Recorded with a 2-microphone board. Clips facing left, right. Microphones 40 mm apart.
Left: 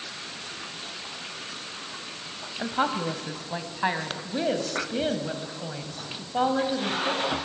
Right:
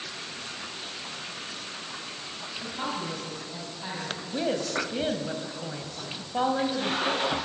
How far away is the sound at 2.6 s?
About 1.4 m.